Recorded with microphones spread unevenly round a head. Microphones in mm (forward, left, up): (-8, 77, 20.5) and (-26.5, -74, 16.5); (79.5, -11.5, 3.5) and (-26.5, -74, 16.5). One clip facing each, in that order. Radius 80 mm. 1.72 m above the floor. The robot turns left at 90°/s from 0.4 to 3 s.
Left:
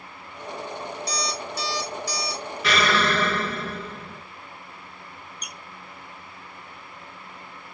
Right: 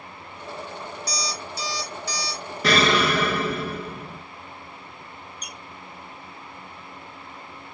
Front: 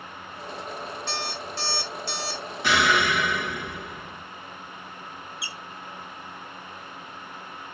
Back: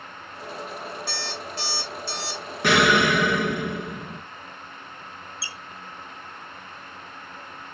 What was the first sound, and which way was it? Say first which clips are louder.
An alarm clock: left 2 dB, front 1 dB; 140° left.